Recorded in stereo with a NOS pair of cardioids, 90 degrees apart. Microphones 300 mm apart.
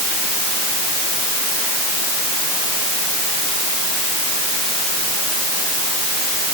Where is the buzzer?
No buzzer in this recording.